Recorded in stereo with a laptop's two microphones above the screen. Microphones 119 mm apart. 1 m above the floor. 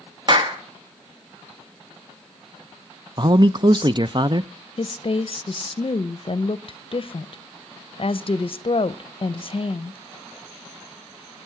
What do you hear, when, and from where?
0.3 s a clap: 40° right (ahead or behind), 1.1 m
3.2 s a man speaking: 40° right (ahead or behind), 0.5 m
4.8 s a woman speaking: 50° left (ahead or behind), 0.6 m